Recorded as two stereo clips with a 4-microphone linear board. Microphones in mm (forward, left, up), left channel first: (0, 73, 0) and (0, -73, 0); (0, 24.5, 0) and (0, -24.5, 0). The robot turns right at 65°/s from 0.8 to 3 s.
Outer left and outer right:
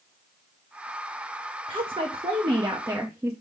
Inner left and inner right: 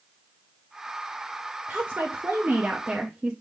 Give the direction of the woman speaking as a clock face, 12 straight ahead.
4 o'clock.